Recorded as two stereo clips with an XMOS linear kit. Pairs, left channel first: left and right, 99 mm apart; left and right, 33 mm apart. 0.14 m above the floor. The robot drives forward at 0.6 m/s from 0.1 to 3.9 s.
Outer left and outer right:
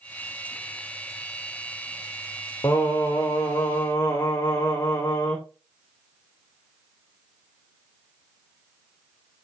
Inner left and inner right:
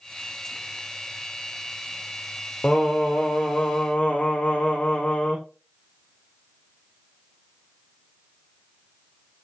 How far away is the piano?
I don't hear a piano.